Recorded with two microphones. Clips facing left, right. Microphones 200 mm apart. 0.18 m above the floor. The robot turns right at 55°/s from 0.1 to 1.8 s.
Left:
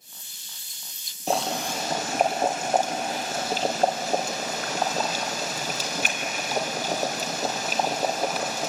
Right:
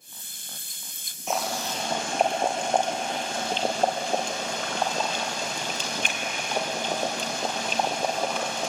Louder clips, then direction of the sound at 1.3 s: Left 3 dB; 35° left (ahead or behind).